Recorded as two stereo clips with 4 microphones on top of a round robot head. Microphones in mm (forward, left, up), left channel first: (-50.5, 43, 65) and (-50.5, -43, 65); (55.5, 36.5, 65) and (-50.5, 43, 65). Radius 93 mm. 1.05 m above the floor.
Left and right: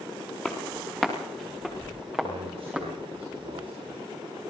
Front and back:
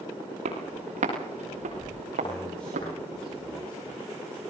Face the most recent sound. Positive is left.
turn(degrees=-85)